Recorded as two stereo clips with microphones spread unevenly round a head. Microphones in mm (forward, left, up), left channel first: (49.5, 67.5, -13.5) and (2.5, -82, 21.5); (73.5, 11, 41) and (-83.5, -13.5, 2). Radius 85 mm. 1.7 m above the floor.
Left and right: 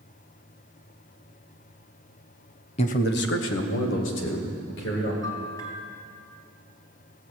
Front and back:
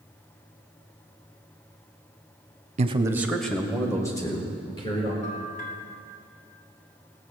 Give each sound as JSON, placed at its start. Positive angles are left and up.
{"t": 2.8, "sound": "a man speaking", "azimuth_deg": 135, "distance_m": 0.8}
{"t": 5.2, "sound": "a bell", "azimuth_deg": 0, "distance_m": 2.0}